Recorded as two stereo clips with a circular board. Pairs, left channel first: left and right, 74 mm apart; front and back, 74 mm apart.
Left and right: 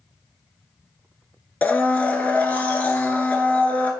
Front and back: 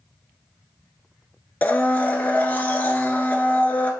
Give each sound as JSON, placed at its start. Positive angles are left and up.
{"t": 1.6, "sound": "a blender", "azimuth_deg": 40, "distance_m": 0.5}